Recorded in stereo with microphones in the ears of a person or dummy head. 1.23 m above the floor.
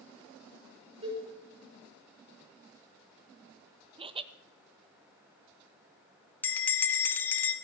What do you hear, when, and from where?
1.0 s a cowbell: 35° right (ahead or behind), 3 m
4.0 s laughter: 25° right (ahead or behind), 0.5 m
6.4 s a bell: 10° left (ahead or behind), 1.6 m